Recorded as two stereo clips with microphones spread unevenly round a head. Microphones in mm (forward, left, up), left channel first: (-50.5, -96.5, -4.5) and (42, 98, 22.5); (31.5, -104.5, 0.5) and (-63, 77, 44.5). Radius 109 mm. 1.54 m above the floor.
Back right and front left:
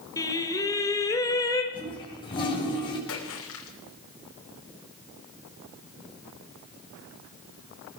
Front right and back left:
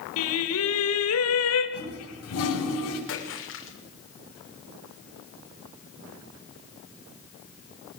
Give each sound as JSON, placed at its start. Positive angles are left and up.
{"t": 0.2, "sound": "singing", "azimuth_deg": -40, "distance_m": 3.5}
{"t": 1.7, "sound": "a toilet flushing", "azimuth_deg": -45, "distance_m": 8.5}
{"t": 3.1, "sound": "a splash", "azimuth_deg": -85, "distance_m": 6.5}